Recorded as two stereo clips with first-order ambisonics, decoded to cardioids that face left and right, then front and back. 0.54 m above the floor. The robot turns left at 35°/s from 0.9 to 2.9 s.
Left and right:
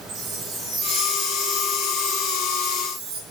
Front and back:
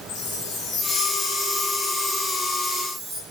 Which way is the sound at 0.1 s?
35° right.